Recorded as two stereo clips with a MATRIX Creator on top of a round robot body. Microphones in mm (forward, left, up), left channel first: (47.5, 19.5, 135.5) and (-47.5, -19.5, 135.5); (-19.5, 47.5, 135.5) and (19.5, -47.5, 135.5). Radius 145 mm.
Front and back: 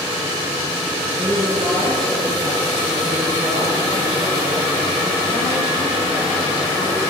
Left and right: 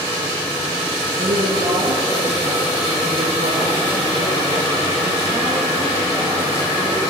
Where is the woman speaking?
60° right, 9.5 m; by 7.1 s 35° right, 15 m.